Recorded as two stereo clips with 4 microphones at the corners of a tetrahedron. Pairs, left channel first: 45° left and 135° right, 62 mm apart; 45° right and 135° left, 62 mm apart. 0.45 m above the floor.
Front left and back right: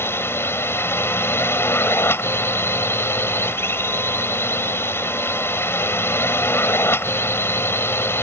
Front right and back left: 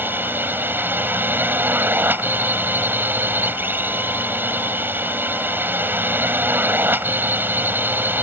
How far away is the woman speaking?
No woman speaking in this recording.